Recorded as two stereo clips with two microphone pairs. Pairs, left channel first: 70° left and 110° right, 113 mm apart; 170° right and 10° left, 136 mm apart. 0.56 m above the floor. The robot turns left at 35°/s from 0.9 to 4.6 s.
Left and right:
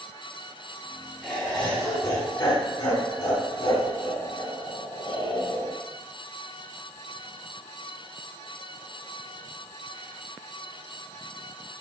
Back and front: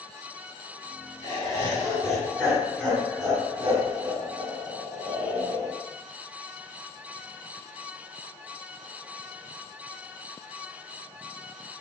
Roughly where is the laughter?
Behind left.